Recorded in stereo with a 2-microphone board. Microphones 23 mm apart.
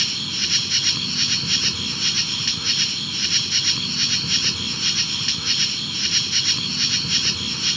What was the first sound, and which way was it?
An insect, centre (ahead or behind).